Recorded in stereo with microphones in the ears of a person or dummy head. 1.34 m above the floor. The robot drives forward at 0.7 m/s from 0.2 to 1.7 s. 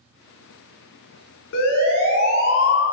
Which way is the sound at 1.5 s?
60° left (ahead or behind).